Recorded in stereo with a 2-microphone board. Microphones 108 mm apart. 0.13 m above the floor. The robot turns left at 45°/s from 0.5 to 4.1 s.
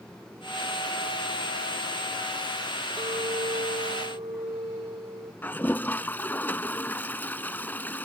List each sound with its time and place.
3.0 s a clink: 65° right; by 5.3 s 115° right
5.4 s a toilet flushing: 20° left (ahead or behind)